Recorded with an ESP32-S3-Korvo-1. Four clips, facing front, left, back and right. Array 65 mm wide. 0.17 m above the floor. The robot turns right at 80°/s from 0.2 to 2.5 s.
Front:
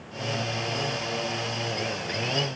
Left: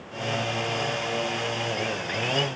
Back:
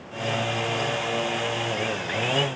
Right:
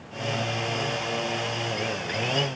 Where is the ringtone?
No ringtone in this recording.